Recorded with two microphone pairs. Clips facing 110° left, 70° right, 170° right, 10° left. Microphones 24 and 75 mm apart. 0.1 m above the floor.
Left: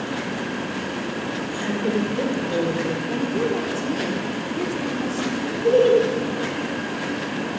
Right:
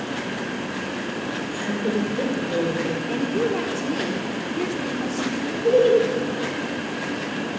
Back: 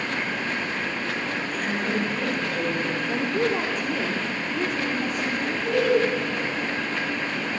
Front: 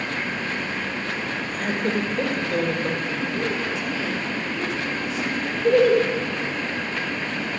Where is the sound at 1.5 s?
40° left, 3 m.